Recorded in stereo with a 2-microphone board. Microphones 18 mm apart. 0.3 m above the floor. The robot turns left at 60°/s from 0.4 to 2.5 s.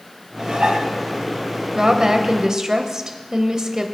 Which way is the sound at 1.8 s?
60° right.